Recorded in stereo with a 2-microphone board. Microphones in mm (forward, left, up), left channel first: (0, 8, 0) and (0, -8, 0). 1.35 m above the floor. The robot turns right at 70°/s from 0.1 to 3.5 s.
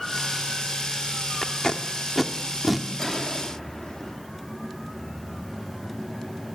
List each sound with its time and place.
1.4 s tape being pulled: 55° left (ahead or behind), 1.4 m; by 2.9 s 20° right (ahead or behind), 1.4 m
3.0 s a gunshot: 30° left, 3 m; by 4.2 s 65° left, 3 m